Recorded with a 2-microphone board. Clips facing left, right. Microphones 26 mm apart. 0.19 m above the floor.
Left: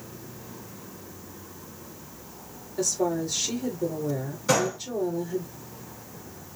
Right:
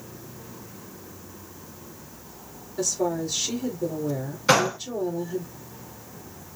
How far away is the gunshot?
About 0.7 m.